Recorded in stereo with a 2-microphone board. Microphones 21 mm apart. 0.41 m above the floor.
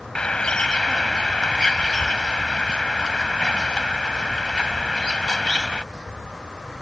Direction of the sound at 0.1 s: 50° left (ahead or behind).